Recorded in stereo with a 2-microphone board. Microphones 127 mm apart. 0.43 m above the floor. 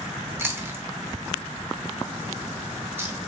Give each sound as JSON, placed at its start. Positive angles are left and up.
{"t": 0.4, "sound": "chewing", "side_deg": -20, "distance_m": 0.7}